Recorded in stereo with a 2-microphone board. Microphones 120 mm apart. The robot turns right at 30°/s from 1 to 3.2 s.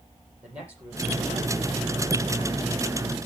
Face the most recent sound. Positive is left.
turn(degrees=-105)